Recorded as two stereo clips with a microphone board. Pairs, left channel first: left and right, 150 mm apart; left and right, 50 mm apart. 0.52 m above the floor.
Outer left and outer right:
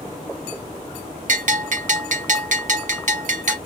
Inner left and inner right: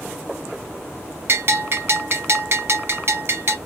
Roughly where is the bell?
Right.